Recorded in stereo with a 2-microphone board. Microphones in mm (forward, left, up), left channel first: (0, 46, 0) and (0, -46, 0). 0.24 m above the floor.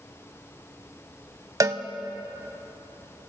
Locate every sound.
1.6 s a cowbell: 40° right (ahead or behind), 0.6 m